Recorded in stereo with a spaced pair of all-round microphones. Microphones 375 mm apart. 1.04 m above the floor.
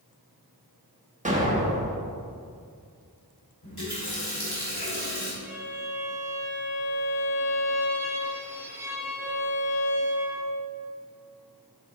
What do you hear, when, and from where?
1.2 s an explosion: 20° right (ahead or behind), 1.1 m
3.6 s a running tap: 70° left (ahead or behind), 2.5 m
5.4 s a violin: 5° right (ahead or behind), 1.2 m